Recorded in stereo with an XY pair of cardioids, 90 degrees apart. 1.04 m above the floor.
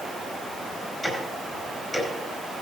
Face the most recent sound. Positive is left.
turn(degrees=10)